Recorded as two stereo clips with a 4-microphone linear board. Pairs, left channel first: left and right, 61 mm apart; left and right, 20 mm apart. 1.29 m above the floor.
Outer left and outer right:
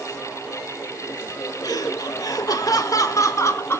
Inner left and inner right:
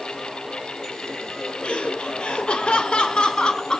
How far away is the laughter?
About 2 m.